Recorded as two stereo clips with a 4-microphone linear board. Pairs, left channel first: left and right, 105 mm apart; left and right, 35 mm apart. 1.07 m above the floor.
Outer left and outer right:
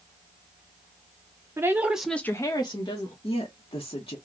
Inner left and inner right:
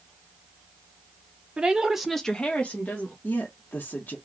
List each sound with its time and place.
1.6 s a woman speaking: 25° right (ahead or behind), 0.8 m; by 3.1 s 50° left (ahead or behind), 1.0 m
3.2 s a woman speaking: 55° left (ahead or behind), 0.7 m